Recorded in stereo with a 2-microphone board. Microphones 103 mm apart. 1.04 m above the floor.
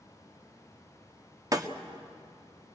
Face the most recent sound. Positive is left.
turn(degrees=-35)  # may be behind; listen again after turning